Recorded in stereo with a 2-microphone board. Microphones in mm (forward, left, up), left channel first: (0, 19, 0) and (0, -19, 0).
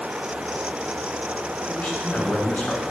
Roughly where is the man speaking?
Left.